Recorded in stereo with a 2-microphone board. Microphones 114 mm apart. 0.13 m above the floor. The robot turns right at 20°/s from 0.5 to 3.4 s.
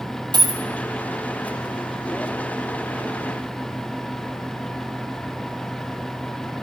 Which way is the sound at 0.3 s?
35° right (ahead or behind).